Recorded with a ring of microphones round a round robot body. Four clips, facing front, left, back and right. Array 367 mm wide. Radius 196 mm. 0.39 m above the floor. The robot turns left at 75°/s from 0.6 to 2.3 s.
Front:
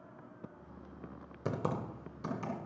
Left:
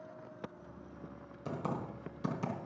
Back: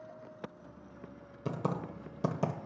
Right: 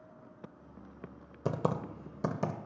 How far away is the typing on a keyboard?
About 1.4 m.